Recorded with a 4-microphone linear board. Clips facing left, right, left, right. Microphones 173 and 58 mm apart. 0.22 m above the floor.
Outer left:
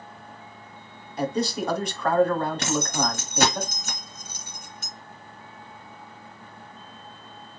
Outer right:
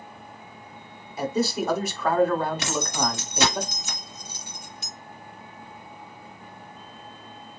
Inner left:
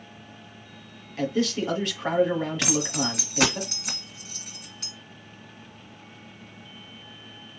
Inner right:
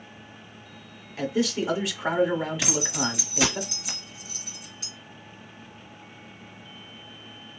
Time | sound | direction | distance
1.2 | a man speaking | 5° right (ahead or behind) | 1.2 m
2.6 | keys jangling | 50° left (ahead or behind) | 1.7 m